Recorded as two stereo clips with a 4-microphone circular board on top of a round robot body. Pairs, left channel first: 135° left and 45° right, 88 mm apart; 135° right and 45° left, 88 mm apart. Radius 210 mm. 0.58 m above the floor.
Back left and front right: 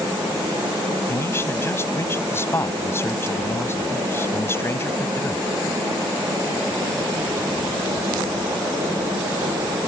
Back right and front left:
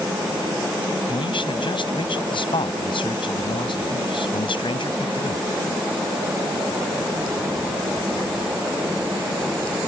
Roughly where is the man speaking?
Behind.